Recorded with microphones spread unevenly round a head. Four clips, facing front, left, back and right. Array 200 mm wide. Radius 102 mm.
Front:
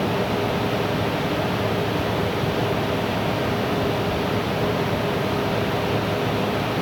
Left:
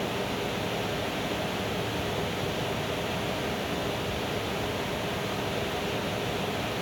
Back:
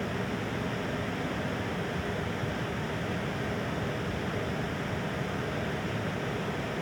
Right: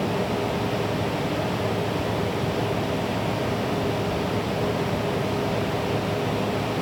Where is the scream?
No scream in this recording.